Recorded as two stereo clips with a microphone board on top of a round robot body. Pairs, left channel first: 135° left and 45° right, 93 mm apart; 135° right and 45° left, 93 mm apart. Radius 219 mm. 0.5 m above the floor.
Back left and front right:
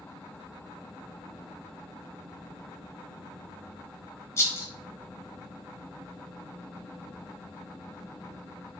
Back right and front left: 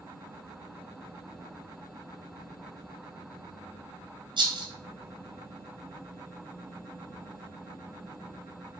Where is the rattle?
75° left, 1.0 m.